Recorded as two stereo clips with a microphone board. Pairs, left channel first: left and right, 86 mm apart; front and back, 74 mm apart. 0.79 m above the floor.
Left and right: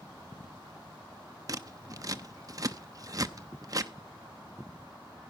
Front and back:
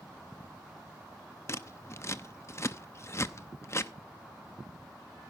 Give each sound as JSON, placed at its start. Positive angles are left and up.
{"t": 1.5, "sound": "scissors", "azimuth_deg": -50, "distance_m": 0.7}